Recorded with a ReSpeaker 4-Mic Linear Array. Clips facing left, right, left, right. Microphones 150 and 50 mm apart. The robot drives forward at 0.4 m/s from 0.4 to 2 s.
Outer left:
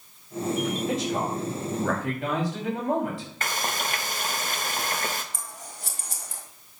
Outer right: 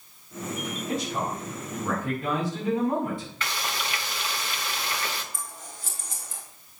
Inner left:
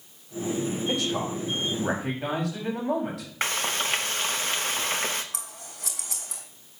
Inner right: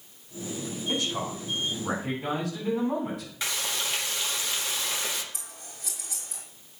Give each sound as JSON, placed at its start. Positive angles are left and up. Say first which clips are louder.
{"t": 0.9, "sound": "a man speaking", "louder": "outer left 3 dB, inner left 2 dB", "side_deg": 80, "distance_m": 5.5}
{"t": 3.4, "sound": "frying", "louder": "outer left 2 dB, inner left 5 dB", "side_deg": 45, "distance_m": 1.0}
{"t": 5.3, "sound": "scissors", "louder": "even, inner left 4 dB", "side_deg": 70, "distance_m": 2.5}